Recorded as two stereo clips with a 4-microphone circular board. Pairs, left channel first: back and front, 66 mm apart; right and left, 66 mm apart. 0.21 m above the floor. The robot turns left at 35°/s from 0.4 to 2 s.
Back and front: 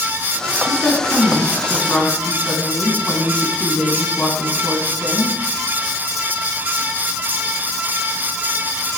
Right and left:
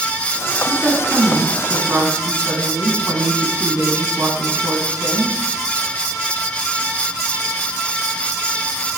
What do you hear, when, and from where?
0.7 s a woman speaking: 150° left, 2 m; by 5.3 s 105° left, 2 m